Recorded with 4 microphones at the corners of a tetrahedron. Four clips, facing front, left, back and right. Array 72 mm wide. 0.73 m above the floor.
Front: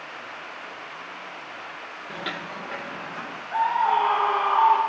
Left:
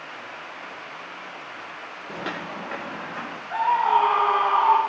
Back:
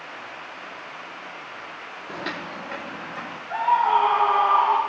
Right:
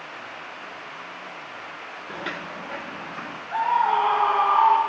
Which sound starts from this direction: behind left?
Footsteps, at 2.1 s.